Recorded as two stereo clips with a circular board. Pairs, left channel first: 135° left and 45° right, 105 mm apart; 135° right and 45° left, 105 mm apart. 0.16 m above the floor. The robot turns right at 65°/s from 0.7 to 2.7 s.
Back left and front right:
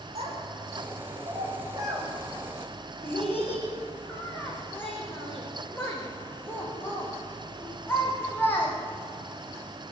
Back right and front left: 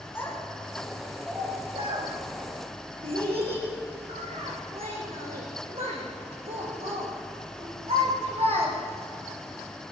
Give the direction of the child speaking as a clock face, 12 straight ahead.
2 o'clock.